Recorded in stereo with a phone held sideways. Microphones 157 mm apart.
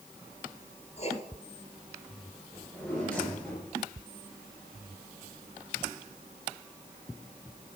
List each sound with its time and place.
1.0 s writing: 45° left (ahead or behind), 2 m
2.5 s a drawer: 10° left (ahead or behind), 6.5 m